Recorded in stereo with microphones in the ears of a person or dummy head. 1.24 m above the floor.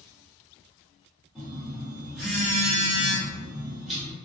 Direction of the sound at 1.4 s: Centre (ahead or behind).